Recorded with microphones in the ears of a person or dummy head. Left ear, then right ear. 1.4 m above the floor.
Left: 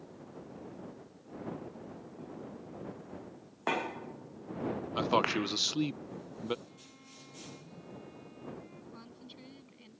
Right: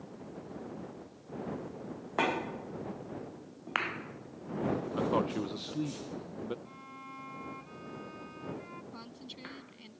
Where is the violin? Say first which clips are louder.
Right 8 dB; 55° right (ahead or behind).